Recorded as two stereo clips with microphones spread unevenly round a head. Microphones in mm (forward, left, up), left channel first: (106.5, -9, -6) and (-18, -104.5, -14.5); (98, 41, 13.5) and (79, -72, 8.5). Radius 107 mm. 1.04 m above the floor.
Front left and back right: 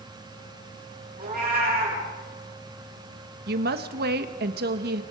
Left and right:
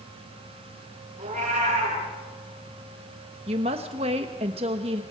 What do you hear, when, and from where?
1.2 s a cat meowing: 120° right, 8 m
3.5 s a woman speaking: 145° right, 1.2 m